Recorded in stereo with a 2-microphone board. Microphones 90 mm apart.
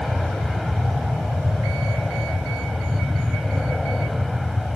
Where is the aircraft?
Centre (ahead or behind).